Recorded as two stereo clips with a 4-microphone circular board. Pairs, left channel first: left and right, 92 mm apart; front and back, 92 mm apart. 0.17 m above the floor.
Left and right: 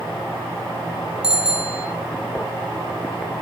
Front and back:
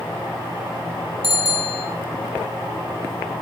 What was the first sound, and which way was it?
A bicycle bell, 175° right.